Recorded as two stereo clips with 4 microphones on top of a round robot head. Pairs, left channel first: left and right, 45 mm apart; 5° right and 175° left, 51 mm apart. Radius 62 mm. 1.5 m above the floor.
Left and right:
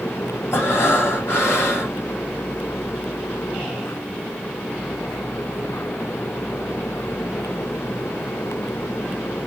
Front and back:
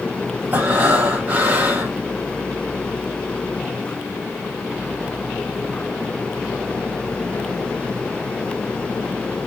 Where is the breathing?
115° left, 4.5 m.